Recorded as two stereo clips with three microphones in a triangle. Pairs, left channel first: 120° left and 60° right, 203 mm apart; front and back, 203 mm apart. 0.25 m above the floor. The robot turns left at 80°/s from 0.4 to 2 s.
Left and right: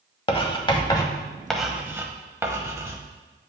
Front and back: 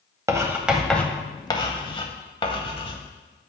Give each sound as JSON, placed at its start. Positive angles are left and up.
{"t": 0.3, "sound": "writing", "azimuth_deg": 125, "distance_m": 0.8}